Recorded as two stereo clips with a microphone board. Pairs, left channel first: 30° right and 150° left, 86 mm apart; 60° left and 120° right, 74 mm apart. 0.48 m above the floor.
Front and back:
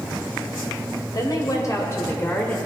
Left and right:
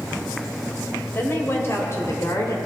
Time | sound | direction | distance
1.1 | a woman speaking | 5° left | 2.5 m